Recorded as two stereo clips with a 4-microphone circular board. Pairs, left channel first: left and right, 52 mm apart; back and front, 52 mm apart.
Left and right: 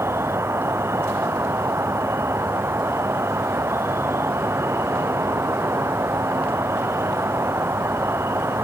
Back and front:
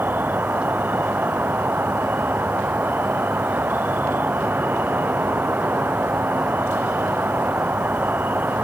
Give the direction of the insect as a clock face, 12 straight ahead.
2 o'clock.